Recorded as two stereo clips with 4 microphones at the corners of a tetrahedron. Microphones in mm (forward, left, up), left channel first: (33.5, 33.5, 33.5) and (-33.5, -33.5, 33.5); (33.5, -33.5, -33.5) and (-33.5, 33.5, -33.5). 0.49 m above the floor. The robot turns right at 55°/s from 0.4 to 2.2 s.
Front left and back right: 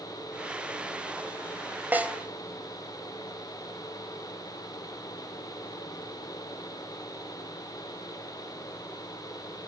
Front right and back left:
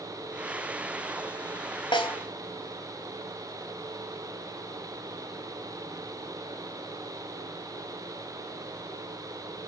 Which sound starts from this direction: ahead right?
A snare drum, at 1.9 s.